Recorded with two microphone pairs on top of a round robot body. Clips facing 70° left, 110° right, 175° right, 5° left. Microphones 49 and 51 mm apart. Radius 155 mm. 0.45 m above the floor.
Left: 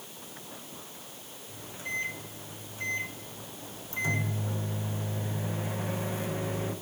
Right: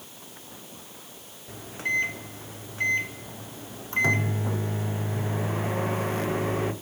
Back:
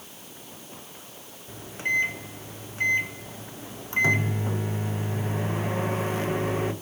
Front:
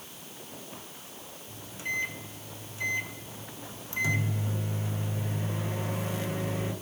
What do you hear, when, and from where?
1.5 s a microwave: 130° right, 1.0 m